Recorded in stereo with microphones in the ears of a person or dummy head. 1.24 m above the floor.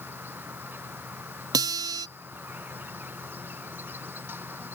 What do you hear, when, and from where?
0.0 s an insect: 10° right (ahead or behind)
1.5 s a guitar: 25° right (ahead or behind)